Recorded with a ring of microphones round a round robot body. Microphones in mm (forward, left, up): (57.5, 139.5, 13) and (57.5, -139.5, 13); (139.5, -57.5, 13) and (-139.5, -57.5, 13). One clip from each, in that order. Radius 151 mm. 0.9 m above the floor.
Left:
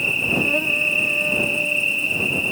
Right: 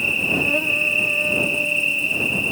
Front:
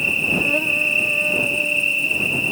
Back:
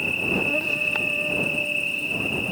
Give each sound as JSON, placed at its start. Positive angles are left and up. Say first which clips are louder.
{"t": 0.0, "sound": "an insect", "louder": "even, front 5 dB", "azimuth_deg": 0}